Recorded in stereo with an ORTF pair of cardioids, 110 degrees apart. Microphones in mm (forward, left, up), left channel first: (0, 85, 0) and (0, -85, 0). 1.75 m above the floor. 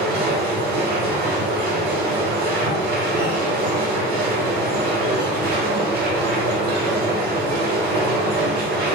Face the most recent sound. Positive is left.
turn(degrees=-65)